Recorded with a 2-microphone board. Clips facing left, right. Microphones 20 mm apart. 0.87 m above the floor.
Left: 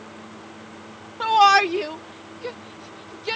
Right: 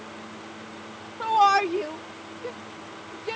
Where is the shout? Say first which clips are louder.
Left 4 dB; 70° left (ahead or behind); by 3.4 s 65° left (ahead or behind).